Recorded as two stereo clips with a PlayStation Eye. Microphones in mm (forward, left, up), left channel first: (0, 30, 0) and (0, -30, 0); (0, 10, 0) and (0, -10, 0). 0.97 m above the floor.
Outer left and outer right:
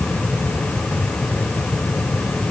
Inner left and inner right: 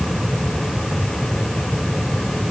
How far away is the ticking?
No ticking in this recording.